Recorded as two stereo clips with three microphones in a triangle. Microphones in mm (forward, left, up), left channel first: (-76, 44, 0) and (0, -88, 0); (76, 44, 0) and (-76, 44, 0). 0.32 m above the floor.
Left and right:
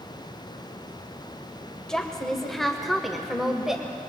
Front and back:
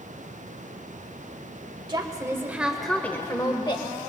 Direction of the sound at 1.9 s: 160° right.